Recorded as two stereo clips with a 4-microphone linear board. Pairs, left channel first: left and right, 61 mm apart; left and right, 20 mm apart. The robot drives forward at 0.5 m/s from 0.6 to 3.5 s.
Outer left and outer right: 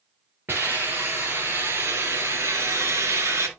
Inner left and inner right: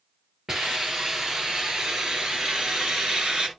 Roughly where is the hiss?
Right.